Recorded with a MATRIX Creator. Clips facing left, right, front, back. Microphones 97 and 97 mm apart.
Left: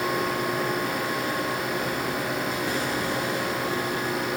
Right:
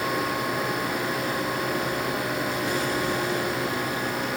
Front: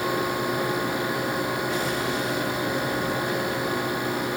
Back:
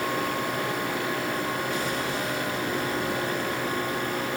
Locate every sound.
Only background noise.